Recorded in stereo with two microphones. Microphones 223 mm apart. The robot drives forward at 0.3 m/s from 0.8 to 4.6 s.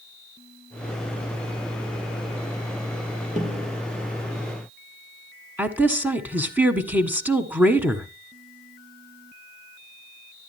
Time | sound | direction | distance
3.4 | a snare drum | 35° right (ahead or behind) | 4.5 m
5.6 | a woman speaking | 10° right (ahead or behind) | 1.6 m